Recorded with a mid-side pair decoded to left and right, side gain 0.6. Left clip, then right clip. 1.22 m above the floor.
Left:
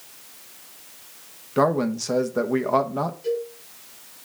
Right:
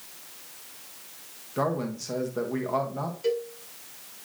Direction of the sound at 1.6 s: 40° left.